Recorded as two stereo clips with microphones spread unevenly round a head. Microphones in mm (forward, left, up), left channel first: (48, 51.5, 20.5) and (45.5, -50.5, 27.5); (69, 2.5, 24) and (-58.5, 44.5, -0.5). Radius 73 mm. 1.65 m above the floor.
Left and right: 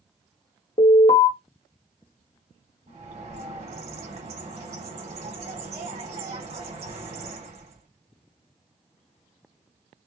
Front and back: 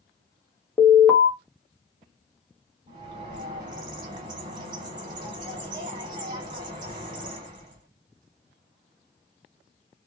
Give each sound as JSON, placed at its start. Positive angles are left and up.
{"t": 0.8, "sound": "an alarm", "azimuth_deg": 65, "distance_m": 1.6}
{"t": 2.9, "sound": "a bird", "azimuth_deg": -135, "distance_m": 1.2}